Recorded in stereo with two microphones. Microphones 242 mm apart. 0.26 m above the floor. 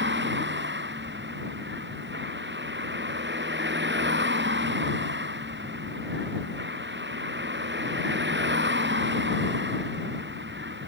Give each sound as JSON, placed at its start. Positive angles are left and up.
{"t": 0.0, "sound": "a vehicle", "side_deg": -50}